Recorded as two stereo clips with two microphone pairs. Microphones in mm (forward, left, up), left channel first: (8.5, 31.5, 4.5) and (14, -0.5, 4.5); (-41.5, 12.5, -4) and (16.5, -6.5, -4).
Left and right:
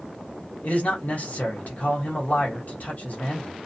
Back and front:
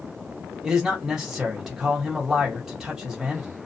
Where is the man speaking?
65° left, 1.2 m.